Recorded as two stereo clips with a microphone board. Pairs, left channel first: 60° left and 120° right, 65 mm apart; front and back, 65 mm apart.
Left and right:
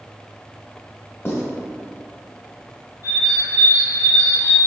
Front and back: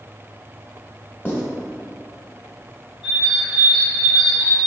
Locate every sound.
1.2 s writing: 45° left, 0.8 m
3.0 s a bird: 140° right, 1.7 m